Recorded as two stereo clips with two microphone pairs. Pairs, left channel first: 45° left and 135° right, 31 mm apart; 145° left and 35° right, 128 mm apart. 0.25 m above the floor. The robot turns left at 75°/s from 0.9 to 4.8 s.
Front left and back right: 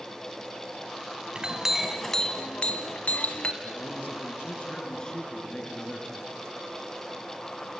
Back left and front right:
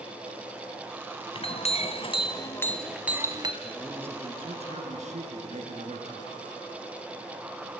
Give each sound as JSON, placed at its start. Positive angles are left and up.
{"t": 1.4, "sound": "a clink", "azimuth_deg": 170, "distance_m": 1.4}
{"t": 3.6, "sound": "a man speaking", "azimuth_deg": 70, "distance_m": 4.0}